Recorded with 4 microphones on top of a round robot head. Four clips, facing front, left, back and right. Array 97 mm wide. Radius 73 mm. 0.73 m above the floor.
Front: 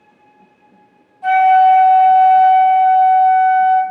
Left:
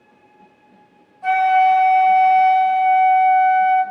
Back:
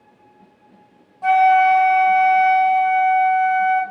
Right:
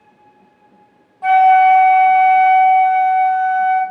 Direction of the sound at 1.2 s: 115° right.